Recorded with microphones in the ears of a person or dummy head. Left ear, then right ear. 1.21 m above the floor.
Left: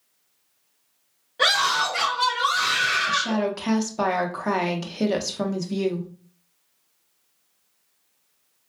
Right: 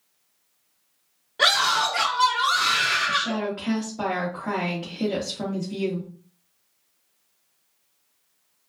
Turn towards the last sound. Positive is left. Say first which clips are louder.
# left 1 dB
turn(degrees=75)  # may be behind; listen again after turning